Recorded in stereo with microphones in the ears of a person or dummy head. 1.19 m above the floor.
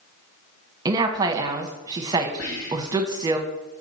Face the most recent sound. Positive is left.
turn(degrees=75)  # may be behind; listen again after turning